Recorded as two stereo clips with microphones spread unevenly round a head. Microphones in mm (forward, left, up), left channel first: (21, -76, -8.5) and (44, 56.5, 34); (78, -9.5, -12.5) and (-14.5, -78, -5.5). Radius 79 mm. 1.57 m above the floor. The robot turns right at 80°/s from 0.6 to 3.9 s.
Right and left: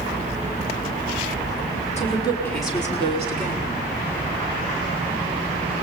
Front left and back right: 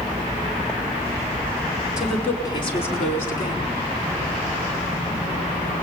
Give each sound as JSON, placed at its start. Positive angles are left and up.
{"t": 2.0, "sound": "a woman speaking", "azimuth_deg": -60, "distance_m": 5.5}